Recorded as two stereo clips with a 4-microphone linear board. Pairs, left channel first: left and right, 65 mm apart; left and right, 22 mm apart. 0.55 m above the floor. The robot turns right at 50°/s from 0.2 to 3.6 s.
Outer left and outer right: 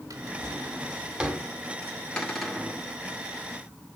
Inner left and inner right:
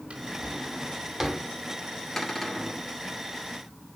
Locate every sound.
0.1 s a drawer: 65° right (ahead or behind), 1.6 m; by 1.5 s 5° right (ahead or behind), 1.6 m
2.2 s a cupboard door: 165° left, 1.8 m; by 2.8 s 165° right, 1.8 m